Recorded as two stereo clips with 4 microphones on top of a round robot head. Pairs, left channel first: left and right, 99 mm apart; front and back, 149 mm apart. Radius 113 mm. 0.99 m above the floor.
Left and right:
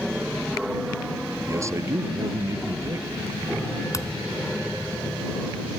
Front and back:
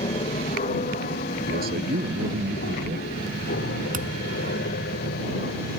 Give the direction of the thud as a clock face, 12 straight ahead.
7 o'clock.